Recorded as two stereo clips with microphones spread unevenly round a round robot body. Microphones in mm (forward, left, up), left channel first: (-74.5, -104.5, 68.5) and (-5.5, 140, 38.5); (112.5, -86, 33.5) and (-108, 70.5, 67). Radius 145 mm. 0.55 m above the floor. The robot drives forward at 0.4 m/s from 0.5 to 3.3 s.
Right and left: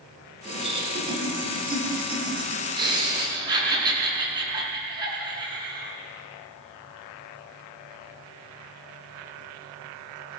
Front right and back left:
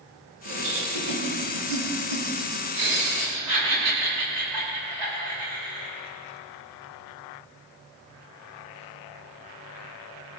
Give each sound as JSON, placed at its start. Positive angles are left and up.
{"t": 0.5, "sound": "laughter", "azimuth_deg": 140, "distance_m": 6.5}